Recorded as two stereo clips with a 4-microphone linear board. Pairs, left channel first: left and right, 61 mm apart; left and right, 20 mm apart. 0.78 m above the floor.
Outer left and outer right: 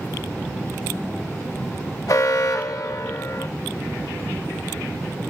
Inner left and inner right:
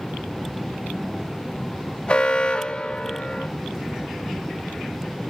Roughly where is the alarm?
Left.